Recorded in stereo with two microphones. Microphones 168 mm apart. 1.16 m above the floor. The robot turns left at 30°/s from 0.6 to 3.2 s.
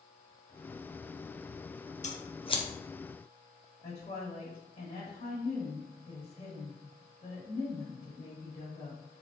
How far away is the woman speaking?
About 1.4 m.